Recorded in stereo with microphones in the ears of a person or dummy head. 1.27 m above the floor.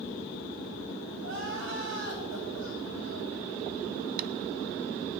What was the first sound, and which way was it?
Crying, 70° right (ahead or behind).